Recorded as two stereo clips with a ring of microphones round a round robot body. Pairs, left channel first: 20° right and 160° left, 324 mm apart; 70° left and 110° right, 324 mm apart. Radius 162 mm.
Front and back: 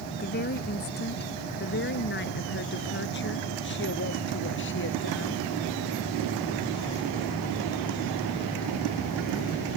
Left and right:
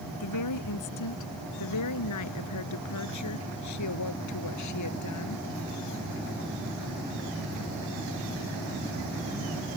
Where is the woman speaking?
40° left; by 5.4 s 30° left.